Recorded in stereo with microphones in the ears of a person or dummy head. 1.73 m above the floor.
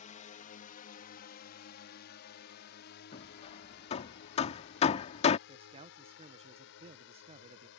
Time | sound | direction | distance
0.0 | a drone | 40° left (ahead or behind) | ?
3.1 | hammering | 35° left (ahead or behind) | ?
5.5 | a man speaking | 35° right (ahead or behind) | ?